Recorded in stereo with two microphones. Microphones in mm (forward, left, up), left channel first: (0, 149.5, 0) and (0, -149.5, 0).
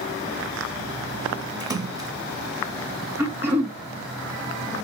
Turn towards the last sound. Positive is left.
turn(degrees=-10)  # may be behind; listen again after turning